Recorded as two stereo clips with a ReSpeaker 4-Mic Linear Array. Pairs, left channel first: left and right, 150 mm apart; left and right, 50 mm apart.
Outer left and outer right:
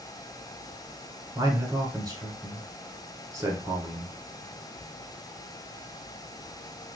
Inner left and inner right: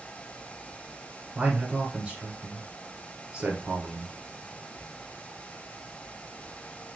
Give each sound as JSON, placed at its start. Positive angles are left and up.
{"t": 1.4, "sound": "a man speaking", "side_deg": -20, "distance_m": 1.1}